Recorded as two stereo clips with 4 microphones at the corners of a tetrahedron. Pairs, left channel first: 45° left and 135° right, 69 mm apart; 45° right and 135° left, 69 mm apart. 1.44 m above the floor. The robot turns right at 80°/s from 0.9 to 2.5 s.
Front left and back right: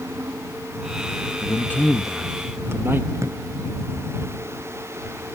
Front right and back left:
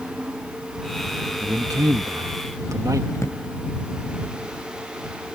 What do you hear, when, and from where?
1.4 s a man speaking: 85° left; by 3.0 s 170° left
3.1 s a drawer: 90° right